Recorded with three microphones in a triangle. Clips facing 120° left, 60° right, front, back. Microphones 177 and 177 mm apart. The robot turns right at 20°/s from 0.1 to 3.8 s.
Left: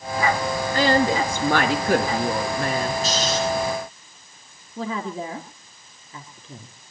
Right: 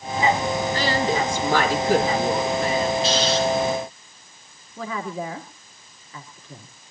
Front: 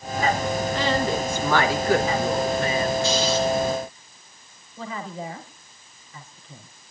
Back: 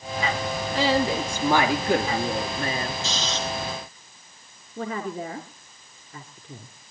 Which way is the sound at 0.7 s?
95° left.